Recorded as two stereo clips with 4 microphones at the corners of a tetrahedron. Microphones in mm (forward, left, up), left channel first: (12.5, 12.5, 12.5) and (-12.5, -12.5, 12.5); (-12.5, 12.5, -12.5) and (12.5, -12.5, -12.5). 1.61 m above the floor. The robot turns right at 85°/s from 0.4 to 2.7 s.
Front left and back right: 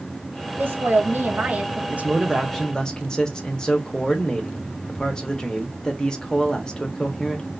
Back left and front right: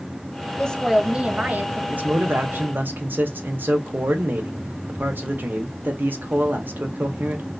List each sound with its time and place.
0.6 s a woman speaking: 165° right, 0.7 m; by 1.8 s 60° right, 0.7 m
1.9 s a man speaking: 90° right, 0.7 m; by 7.5 s 20° right, 0.7 m